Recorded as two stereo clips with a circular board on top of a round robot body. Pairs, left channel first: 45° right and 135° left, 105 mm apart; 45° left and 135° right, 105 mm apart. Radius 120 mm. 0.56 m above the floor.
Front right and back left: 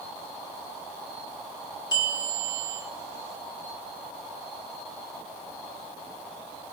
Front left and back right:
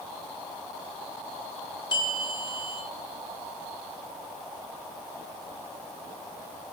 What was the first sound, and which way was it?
A bell, straight ahead.